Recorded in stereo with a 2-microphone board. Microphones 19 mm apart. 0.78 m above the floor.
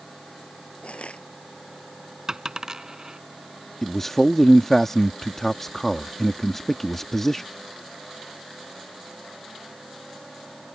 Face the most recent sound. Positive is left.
turn(degrees=15)  # may be behind; listen again after turning